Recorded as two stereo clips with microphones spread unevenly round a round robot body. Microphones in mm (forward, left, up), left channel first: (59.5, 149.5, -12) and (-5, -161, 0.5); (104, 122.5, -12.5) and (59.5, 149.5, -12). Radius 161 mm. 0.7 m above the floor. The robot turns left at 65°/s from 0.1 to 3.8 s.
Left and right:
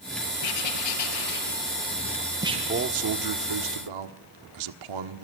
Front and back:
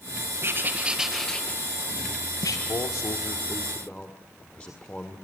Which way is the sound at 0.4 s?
110° left.